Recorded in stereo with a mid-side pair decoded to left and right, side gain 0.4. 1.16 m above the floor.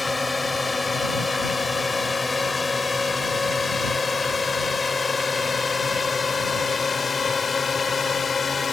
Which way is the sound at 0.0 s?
20° left.